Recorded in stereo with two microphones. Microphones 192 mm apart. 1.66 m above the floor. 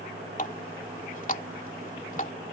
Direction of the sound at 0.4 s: 40° left (ahead or behind).